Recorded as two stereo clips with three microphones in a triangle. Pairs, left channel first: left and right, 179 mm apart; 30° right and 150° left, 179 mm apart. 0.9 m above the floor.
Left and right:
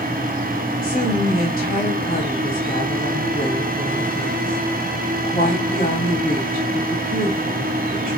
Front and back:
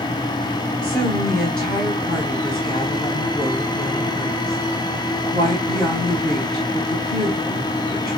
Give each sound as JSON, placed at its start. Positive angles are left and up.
{"t": 0.8, "sound": "a woman speaking", "azimuth_deg": 55, "distance_m": 4.5}